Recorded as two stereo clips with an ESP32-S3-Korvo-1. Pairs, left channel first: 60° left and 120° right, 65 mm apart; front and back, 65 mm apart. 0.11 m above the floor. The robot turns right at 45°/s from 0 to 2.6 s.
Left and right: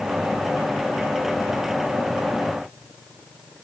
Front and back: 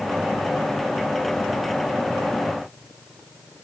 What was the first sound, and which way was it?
Only background noise.